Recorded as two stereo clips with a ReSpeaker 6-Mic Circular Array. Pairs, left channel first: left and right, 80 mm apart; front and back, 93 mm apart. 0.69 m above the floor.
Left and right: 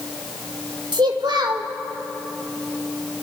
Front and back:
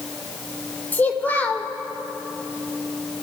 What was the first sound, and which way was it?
A child speaking, 70° right.